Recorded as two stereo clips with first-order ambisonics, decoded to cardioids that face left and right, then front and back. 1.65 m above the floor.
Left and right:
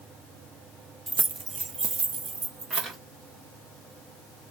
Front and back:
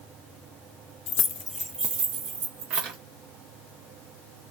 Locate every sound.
1.1 s keys jangling: 20° right, 0.7 m; by 3.0 s 165° right, 1.4 m